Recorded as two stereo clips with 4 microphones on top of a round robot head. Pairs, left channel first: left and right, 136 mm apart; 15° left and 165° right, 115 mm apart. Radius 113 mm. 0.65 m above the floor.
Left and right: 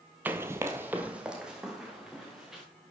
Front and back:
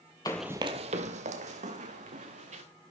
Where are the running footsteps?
25° right, 0.7 m; by 2.6 s straight behind, 3 m.